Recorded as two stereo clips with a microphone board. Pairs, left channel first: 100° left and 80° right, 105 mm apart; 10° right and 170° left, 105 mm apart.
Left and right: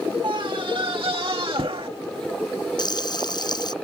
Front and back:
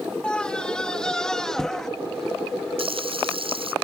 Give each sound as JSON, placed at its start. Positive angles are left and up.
{"t": 0.2, "sound": "a scream", "azimuth_deg": -90}
{"t": 2.8, "sound": "frying", "azimuth_deg": 145}